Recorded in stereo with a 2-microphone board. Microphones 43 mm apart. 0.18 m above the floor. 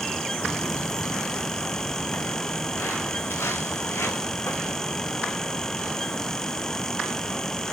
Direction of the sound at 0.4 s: 20° left (ahead or behind).